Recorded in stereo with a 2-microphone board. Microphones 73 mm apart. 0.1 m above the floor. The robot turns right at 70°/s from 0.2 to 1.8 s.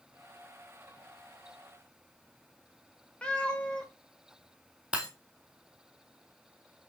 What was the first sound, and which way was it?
A cat meowing, 15° left (ahead or behind).